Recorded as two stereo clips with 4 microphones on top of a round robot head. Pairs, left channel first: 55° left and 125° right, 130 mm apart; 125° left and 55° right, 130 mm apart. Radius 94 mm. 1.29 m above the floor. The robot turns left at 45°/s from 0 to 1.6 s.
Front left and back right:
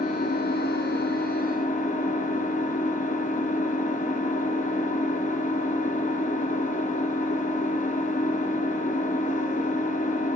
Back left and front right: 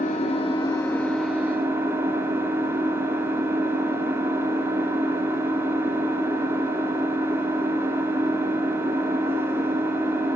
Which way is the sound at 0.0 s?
90° left.